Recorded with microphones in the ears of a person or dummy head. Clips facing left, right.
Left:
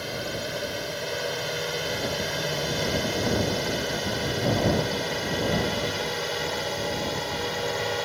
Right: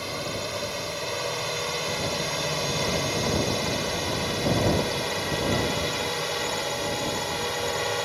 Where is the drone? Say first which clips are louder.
Even; 10° left (ahead or behind); by 8.1 s centre (ahead or behind).